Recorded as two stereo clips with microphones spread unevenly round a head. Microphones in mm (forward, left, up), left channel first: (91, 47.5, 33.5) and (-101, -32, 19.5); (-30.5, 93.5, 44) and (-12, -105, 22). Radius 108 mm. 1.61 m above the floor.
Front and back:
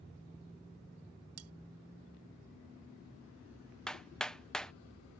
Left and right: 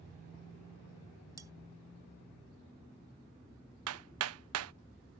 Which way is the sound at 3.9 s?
65° right.